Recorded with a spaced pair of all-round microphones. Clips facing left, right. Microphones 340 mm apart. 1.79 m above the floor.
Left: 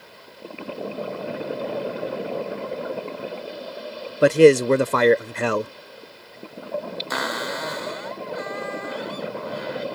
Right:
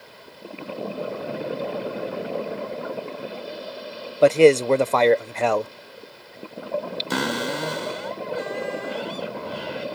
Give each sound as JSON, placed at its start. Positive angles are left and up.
{"t": 4.2, "sound": "a man speaking", "side_deg": 20}
{"t": 7.1, "sound": "a cupboard door", "side_deg": -40}